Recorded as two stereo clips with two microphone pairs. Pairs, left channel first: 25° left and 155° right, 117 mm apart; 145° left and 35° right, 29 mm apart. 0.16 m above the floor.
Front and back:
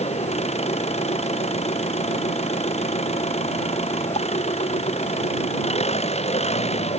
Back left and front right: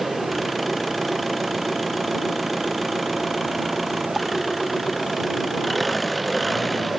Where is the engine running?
50° left.